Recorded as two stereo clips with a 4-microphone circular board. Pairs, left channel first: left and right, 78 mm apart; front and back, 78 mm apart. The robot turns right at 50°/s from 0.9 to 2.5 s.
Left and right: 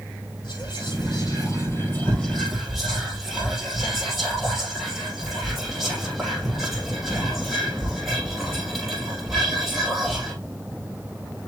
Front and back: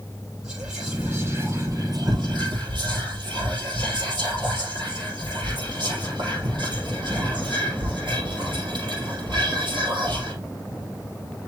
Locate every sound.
0.4 s whispering: 100° left, 6 m; by 10.3 s straight behind, 6 m